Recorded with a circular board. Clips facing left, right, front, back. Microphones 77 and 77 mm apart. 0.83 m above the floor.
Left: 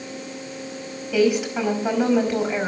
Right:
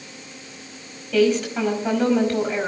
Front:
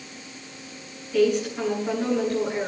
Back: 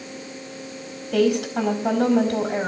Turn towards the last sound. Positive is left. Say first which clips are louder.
# right 1 dB, back 1 dB
turn(degrees=170)